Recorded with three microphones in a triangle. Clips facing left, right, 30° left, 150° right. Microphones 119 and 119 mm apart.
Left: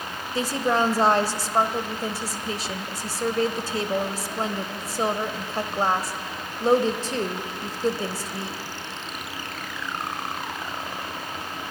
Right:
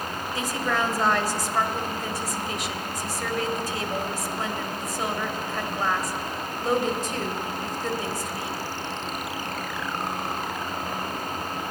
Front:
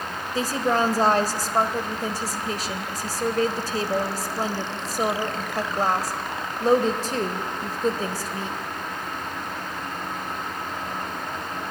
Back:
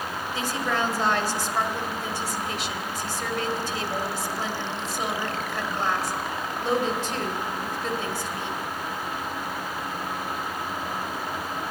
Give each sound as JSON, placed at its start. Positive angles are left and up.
{"t": 0.3, "sound": "a woman speaking", "azimuth_deg": 50, "distance_m": 1.3}